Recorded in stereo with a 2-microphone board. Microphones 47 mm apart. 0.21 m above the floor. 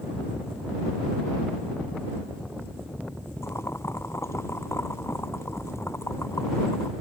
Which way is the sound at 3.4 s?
75° left (ahead or behind).